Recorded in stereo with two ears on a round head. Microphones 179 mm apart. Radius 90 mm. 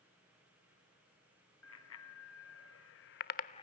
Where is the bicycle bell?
80° left, 3 m; by 3.6 s 20° left (ahead or behind), 0.7 m.